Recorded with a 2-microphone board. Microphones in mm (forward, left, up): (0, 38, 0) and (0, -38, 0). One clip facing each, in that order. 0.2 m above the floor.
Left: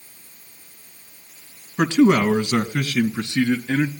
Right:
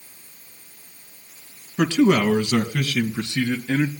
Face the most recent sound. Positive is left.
turn(degrees=15)  # may be behind; listen again after turning